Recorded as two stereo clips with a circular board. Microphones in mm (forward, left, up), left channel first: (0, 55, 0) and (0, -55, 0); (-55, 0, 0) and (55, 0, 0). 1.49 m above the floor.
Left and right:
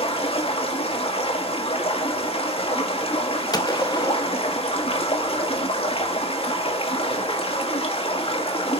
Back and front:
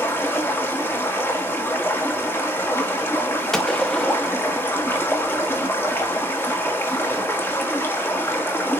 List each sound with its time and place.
0.0 s running water: 110° left, 1.5 m
3.5 s a gunshot: 100° left, 1.0 m